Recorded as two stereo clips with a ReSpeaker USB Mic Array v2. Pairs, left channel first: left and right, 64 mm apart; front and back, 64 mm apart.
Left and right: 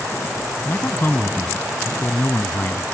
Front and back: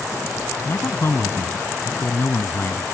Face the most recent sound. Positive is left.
turn(degrees=40)